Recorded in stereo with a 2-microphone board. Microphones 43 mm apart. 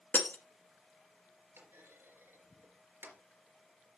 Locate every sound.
0.1 s breaking glass: 50° left (ahead or behind), 1.3 m
1.6 s a clunk: 75° right (ahead or behind), 3.5 m